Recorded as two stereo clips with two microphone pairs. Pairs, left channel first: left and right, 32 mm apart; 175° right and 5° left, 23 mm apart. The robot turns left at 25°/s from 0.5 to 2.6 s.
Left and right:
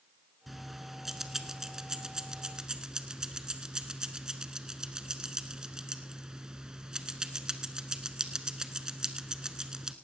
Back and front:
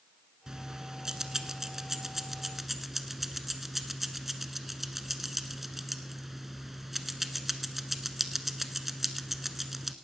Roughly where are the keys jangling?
Ahead.